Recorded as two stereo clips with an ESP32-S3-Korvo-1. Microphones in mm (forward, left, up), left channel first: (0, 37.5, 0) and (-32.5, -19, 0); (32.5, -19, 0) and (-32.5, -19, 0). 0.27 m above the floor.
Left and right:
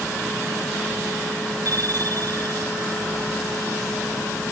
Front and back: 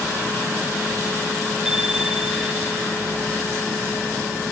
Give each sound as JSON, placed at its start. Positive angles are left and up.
{"t": 1.6, "sound": "a bicycle bell", "azimuth_deg": -95}